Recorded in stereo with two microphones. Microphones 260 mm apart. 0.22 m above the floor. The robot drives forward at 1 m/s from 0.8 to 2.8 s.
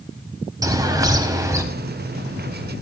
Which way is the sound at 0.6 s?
15° right (ahead or behind).